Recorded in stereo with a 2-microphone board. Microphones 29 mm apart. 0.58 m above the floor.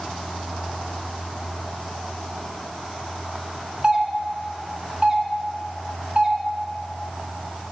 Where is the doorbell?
30° right (ahead or behind), 1.2 m.